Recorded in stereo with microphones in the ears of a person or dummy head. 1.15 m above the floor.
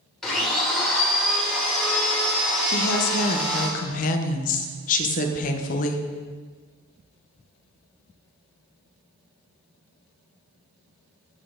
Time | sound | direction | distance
0.2 | a blender | 5° left (ahead or behind) | 1.9 m
2.7 | a woman speaking | 45° left (ahead or behind) | 0.7 m